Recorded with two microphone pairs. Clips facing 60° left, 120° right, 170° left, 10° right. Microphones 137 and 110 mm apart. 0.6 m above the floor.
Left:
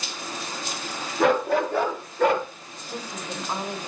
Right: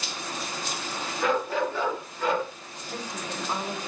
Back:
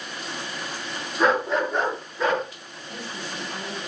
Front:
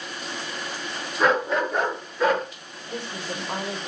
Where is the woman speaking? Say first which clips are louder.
Left 1 dB, front 3 dB; 20° right, 2.0 m.